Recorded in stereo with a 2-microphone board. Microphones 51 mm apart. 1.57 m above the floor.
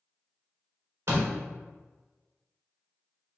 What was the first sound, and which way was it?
A door slam, 60° right (ahead or behind).